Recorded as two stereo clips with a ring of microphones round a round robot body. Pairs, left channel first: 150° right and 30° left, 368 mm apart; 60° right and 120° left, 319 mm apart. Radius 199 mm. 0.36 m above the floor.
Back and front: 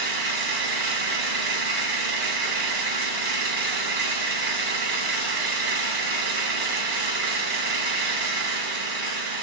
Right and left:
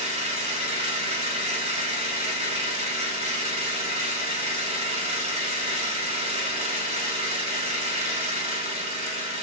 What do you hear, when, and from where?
0.0 s an engine running: 50° left, 2.5 m